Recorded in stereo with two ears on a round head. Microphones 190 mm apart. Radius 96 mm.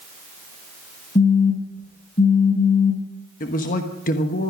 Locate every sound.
1.1 s a phone buzzing: 25° left (ahead or behind), 2.0 m
3.4 s a man speaking: 40° left (ahead or behind), 1.3 m